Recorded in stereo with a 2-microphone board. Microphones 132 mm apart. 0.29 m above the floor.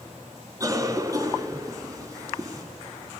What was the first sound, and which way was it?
A cough, 25° right (ahead or behind).